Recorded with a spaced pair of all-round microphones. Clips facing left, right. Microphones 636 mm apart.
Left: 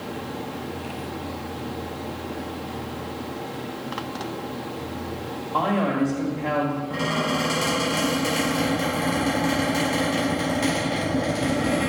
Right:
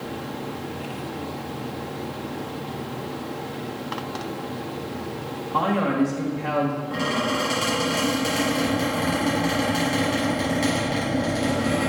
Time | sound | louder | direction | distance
5.5 | a man speaking | right 1 dB | 35° right (ahead or behind) | 1.6 m
6.9 | a squeak | even | 35° left (ahead or behind) | 3.5 m